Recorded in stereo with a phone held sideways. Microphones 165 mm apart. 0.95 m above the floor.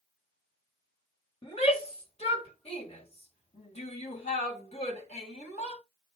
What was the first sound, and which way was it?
A shout, 35° left (ahead or behind).